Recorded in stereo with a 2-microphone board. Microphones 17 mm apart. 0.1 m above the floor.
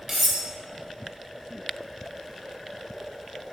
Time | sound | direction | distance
0.1 | cutlery clinking | 25° right (ahead or behind) | 0.9 m